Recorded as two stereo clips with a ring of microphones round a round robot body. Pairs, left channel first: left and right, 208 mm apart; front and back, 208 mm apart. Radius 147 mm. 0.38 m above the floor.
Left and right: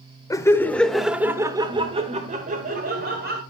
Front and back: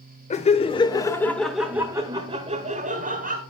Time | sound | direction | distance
0.3 | laughter | 25° left | 1.3 m